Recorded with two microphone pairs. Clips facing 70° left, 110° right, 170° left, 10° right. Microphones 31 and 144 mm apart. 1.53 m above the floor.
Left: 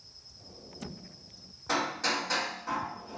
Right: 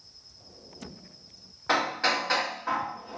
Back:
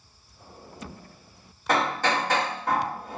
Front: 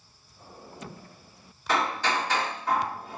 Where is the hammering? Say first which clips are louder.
Right 4 dB, back 3 dB; 155° right, 1.5 m.